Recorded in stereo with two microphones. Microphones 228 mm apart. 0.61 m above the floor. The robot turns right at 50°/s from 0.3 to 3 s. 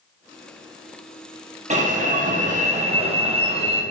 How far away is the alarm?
About 0.5 m.